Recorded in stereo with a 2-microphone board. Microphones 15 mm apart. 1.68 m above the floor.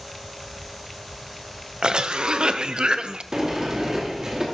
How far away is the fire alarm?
No fire alarm in this recording.